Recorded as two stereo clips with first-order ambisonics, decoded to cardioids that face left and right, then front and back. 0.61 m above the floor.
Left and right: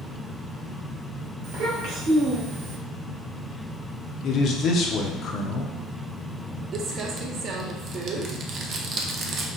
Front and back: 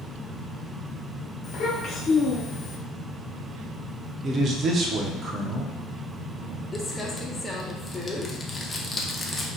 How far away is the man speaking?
About 0.8 m.